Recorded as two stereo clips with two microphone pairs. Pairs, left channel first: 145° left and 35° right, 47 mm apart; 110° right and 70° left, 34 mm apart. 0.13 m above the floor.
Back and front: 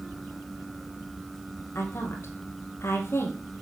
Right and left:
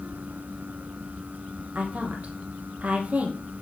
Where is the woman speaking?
115° left, 3.5 m.